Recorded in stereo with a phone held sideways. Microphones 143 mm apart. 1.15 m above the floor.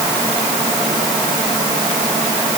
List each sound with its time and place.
Only background noise.